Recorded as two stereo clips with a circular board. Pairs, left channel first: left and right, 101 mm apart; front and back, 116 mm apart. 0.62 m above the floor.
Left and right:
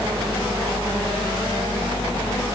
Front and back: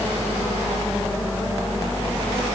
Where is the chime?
No chime in this recording.